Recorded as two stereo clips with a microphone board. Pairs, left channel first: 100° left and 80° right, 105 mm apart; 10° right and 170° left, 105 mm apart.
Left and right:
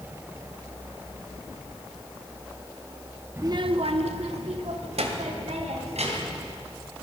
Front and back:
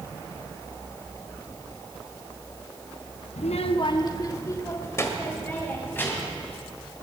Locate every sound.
3.4 s a child speaking: 10° right, 0.5 m; by 6.4 s 80° right, 4 m